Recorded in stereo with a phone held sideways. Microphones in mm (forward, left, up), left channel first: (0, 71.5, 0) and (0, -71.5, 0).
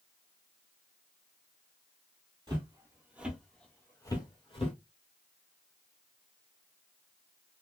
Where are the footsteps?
35° right (ahead or behind), 1.6 m; by 4.8 s 45° left (ahead or behind), 1.7 m.